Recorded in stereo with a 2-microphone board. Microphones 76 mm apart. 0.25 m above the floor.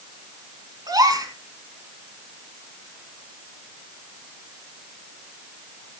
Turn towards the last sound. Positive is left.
turn(degrees=-60)  # may be behind; listen again after turning